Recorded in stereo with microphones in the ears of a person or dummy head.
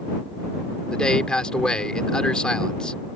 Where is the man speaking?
5° left (ahead or behind).